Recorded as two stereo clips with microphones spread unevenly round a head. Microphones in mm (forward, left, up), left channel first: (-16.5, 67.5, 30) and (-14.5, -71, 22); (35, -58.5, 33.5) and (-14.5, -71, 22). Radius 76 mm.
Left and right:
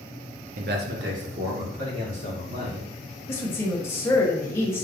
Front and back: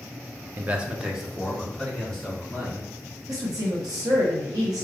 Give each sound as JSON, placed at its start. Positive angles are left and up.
{"t": 0.6, "sound": "a man speaking", "azimuth_deg": -110, "distance_m": 0.5}
{"t": 3.3, "sound": "a woman speaking", "azimuth_deg": 160, "distance_m": 1.2}